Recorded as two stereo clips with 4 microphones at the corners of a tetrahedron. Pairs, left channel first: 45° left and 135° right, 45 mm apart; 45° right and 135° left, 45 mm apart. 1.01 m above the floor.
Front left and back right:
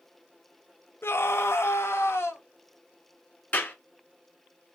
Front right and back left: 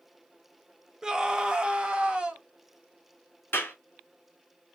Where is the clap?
5° right, 2.5 m.